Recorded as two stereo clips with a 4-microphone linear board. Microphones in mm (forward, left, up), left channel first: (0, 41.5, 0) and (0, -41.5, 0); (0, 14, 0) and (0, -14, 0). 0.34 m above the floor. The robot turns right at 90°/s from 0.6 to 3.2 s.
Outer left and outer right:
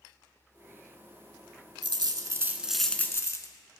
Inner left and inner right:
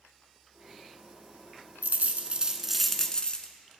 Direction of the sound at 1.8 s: 85° right.